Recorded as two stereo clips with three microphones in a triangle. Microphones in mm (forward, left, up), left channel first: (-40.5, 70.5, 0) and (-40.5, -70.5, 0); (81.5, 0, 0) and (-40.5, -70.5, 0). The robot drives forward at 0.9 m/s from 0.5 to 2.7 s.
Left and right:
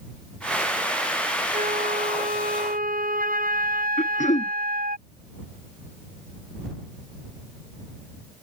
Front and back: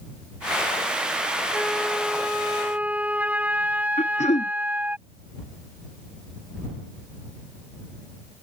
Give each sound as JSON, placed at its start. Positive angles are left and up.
{"t": 1.5, "sound": "a flute", "azimuth_deg": -60}
{"t": 4.0, "sound": "throat clearing", "azimuth_deg": 65}